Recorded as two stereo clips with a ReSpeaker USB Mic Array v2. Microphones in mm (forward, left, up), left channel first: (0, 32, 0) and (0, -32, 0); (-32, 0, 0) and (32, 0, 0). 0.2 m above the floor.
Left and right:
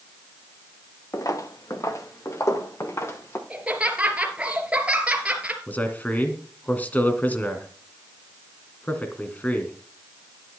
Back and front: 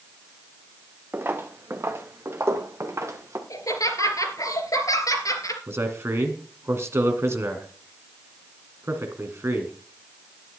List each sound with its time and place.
1.1 s footsteps: 55° left, 1.6 m; by 3.4 s 45° left, 3 m
3.5 s laughter: 160° right, 3 m
5.7 s a man speaking: 30° left, 2 m